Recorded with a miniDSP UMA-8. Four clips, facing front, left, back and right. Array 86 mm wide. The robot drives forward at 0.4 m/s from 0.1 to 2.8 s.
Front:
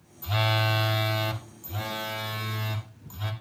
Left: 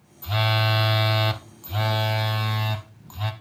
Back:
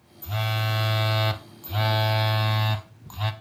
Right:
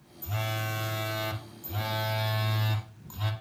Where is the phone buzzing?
65° left, 0.7 m; by 3.3 s 155° left, 1.1 m.